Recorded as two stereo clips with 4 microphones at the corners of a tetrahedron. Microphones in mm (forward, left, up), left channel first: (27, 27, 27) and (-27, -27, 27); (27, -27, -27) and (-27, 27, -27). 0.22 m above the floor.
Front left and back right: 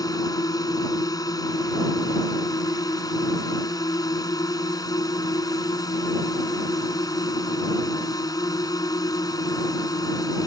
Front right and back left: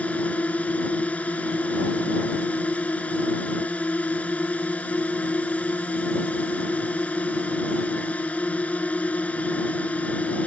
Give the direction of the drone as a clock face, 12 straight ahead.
11 o'clock.